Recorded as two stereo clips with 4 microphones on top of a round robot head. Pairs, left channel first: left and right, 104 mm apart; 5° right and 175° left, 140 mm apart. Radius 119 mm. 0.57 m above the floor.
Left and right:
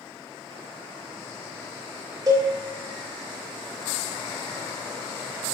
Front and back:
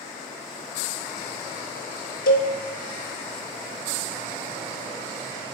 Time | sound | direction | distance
2.3 | a cowbell | 25° right | 0.5 m